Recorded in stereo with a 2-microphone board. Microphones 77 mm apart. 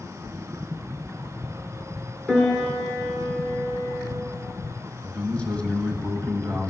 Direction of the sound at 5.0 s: 15° left (ahead or behind).